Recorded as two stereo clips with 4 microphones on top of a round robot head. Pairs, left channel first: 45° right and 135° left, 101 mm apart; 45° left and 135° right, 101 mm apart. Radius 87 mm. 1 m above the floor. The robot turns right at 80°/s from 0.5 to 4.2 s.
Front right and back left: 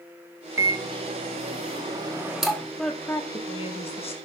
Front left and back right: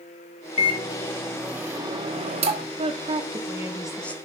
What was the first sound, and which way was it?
A microwave, 70° left.